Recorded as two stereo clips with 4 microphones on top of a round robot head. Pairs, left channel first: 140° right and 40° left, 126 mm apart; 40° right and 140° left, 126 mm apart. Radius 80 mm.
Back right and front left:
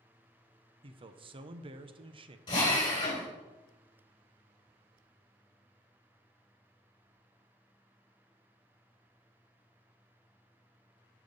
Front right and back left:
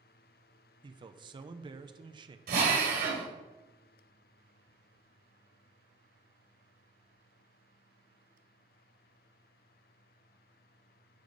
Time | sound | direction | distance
0.8 | a man speaking | 85° left | 0.7 m
2.5 | a drill | 160° left | 2.5 m